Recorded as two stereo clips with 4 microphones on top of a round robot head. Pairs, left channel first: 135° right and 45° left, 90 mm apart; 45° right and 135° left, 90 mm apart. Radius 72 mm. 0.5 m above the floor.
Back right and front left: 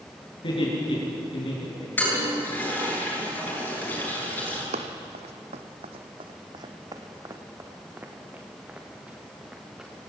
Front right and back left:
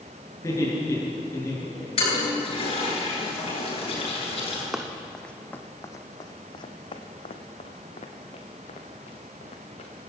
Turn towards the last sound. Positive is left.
turn(degrees=-40)